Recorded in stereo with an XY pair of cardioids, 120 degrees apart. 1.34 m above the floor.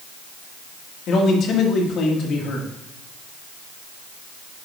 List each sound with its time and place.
1.1 s a man speaking: 55° left, 1.9 m